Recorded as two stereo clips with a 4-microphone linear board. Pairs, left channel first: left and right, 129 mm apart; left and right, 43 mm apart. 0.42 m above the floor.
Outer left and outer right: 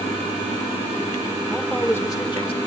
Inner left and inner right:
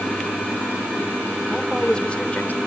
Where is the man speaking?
5° right (ahead or behind), 0.9 m; by 2.6 s 45° left (ahead or behind), 1.1 m.